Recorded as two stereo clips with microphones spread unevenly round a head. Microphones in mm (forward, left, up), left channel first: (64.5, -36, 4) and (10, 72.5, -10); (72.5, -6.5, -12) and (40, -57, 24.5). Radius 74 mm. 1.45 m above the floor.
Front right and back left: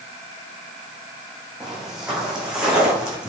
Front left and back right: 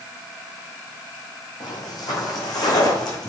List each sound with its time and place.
1.6 s footsteps: 30° left, 4 m